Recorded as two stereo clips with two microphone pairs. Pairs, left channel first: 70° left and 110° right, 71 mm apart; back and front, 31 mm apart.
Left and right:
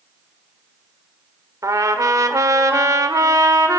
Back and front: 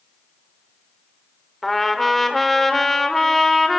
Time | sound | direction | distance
1.6 | a trumpet | 100° right | 1.4 m